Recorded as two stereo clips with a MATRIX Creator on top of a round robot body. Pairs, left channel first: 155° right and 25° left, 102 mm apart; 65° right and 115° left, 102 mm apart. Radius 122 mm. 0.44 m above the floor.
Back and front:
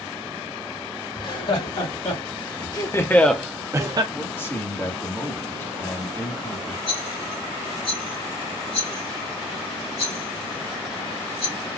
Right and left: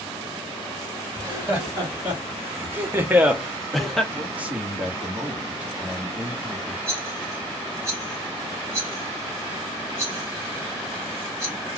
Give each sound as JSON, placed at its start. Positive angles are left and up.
{"t": 1.2, "sound": "laughter", "azimuth_deg": 180, "distance_m": 2.5}
{"t": 4.1, "sound": "a man speaking", "azimuth_deg": 170, "distance_m": 1.4}
{"t": 6.9, "sound": "a rattle", "azimuth_deg": 175, "distance_m": 1.7}